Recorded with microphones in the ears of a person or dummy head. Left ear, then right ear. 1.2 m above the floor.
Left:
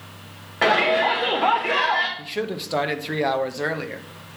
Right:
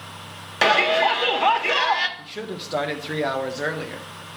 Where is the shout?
75° right (ahead or behind), 1.4 m.